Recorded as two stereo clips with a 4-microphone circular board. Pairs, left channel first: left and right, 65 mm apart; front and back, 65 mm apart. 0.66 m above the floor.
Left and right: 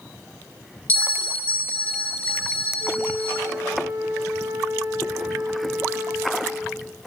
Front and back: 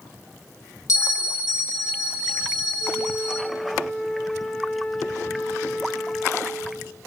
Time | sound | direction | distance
0.9 | a bell | 30° left | 3 m
2.8 | a flute | 70° right | 2.5 m